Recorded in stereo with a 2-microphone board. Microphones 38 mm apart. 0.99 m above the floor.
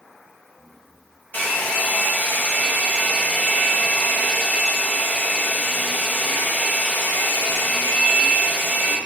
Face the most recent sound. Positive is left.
turn(degrees=55)  # may be behind; listen again after turning